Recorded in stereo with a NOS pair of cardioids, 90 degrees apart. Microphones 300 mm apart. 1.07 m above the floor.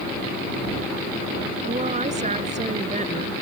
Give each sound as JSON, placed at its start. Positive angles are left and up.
{"t": 1.6, "sound": "a woman speaking", "azimuth_deg": -25}